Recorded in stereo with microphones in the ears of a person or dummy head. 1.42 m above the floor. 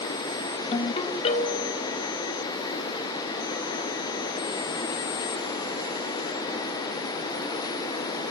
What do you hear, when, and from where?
0.7 s a ringtone: 30° left (ahead or behind), 1.4 m